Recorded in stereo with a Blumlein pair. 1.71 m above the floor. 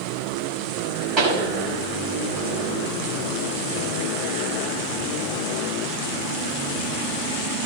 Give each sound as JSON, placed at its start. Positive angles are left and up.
{"t": 1.2, "sound": "a pop", "azimuth_deg": -30, "distance_m": 5.0}